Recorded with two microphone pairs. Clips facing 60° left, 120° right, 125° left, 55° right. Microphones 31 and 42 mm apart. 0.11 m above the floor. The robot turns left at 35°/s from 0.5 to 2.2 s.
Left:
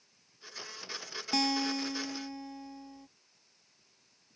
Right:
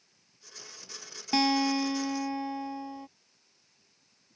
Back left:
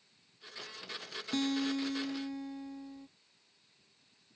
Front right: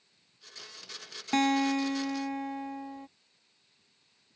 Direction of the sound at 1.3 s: 50° right.